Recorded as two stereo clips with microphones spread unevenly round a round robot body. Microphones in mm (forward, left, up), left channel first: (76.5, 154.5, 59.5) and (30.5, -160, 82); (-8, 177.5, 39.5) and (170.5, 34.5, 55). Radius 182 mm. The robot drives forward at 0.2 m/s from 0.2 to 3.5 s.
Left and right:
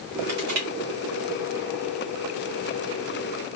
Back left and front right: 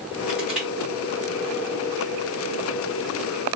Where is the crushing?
125° right, 1.8 m; by 0.7 s 130° right, 1.8 m.